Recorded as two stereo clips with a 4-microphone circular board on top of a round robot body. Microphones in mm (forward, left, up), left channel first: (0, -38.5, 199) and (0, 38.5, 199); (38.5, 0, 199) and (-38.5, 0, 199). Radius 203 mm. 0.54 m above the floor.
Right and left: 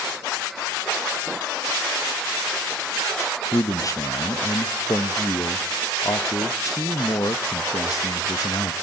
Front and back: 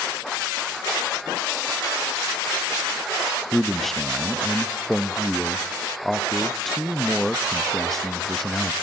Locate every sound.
3.5 s a man speaking: 85° right, 0.7 m